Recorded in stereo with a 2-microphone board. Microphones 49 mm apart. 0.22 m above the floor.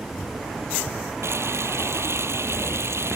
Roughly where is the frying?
Right.